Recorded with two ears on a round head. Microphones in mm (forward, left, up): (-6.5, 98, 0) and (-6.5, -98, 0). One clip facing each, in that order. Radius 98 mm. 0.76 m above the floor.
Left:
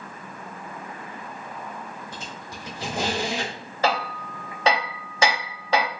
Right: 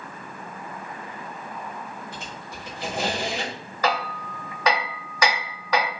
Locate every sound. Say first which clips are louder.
2.1 s a squeak: even; 60° left (ahead or behind), 1.6 m
3.8 s hammering: left 1 dB; 25° left (ahead or behind), 0.6 m